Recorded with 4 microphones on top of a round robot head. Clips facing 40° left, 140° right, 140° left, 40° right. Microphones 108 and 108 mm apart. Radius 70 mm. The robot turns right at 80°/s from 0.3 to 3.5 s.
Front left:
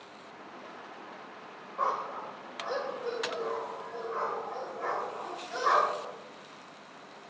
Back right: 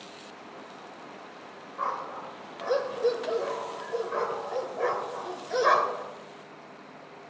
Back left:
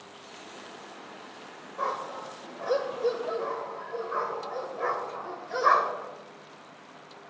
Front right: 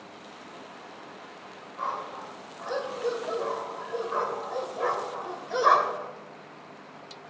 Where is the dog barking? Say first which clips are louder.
Front left 1 dB, back left 1 dB; 105° left, 2.5 m; by 6.1 s 115° right, 2.5 m.